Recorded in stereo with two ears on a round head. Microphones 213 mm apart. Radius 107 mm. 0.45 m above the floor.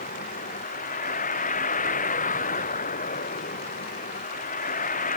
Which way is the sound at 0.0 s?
35° left (ahead or behind).